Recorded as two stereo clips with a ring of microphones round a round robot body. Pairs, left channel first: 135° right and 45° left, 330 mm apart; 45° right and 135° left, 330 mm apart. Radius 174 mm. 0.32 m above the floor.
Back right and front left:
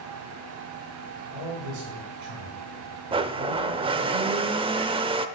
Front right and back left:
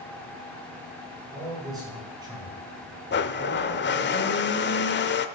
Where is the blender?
20° right, 0.7 m.